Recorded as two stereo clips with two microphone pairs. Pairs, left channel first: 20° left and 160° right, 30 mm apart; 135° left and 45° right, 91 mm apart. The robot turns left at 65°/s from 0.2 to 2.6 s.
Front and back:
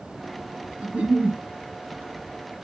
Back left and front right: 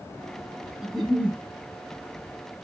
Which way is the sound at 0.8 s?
130° right.